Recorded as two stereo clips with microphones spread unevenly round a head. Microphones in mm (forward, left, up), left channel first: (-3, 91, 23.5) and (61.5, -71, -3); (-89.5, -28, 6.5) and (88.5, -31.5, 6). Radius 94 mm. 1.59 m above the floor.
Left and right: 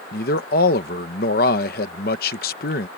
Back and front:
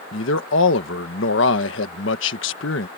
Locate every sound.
0.1 s a man speaking: 155° left